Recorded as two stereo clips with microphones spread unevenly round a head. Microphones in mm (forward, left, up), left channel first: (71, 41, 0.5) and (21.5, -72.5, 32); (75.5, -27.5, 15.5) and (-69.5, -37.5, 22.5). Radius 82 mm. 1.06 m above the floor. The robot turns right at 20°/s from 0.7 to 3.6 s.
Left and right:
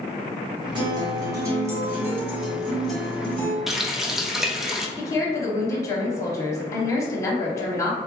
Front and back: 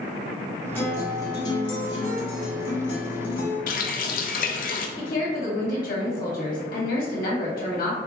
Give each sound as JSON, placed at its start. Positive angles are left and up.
{"t": 0.8, "sound": "a guitar", "azimuth_deg": -75, "distance_m": 1.1}
{"t": 3.7, "sound": "a running tap", "azimuth_deg": -25, "distance_m": 0.5}
{"t": 5.0, "sound": "a woman speaking", "azimuth_deg": 10, "distance_m": 1.0}